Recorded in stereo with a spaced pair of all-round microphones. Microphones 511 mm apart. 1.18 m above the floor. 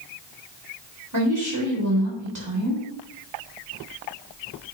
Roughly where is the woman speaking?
Right.